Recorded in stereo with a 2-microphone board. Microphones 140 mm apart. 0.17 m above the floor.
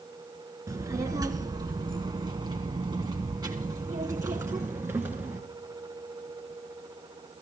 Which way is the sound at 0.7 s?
25° right (ahead or behind).